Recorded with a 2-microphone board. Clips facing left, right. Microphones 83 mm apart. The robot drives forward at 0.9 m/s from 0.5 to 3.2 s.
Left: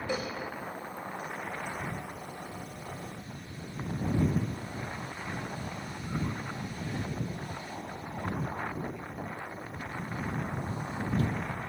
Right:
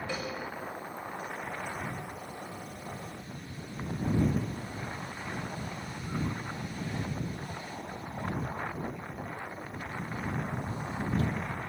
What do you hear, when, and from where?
0.1 s a cowbell: 20° left (ahead or behind), 4 m